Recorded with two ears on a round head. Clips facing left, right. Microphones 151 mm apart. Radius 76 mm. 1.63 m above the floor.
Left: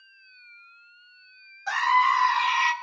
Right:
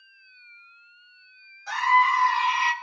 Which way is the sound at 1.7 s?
55° left (ahead or behind).